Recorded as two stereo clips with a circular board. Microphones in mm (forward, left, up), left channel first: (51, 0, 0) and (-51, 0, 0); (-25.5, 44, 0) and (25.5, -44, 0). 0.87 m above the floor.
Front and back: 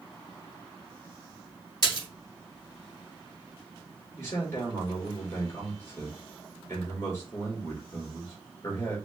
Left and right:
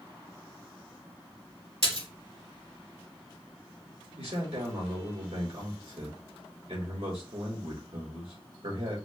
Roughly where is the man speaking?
Ahead right.